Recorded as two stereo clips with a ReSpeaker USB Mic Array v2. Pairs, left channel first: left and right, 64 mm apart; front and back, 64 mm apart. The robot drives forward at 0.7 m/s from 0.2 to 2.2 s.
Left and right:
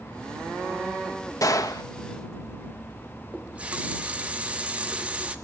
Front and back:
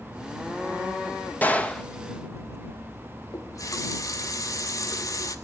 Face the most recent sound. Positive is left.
turn(degrees=-20)